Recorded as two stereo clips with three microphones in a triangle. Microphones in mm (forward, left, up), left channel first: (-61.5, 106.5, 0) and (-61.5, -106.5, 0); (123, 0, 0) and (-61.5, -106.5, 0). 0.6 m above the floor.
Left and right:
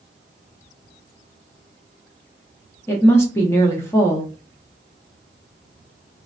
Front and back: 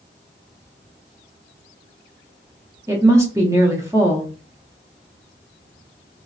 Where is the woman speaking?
155° left, 0.7 m.